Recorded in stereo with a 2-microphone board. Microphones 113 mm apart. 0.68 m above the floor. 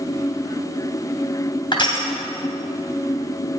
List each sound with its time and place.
1.7 s crushing: 45° left (ahead or behind), 2.5 m